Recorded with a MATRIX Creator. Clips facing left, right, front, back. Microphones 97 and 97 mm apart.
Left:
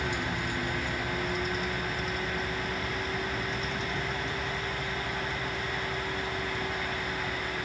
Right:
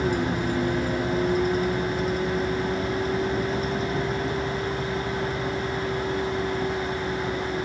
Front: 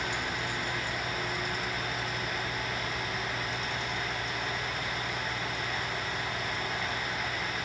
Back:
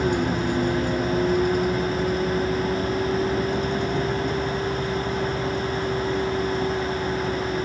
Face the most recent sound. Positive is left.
turn(degrees=-145)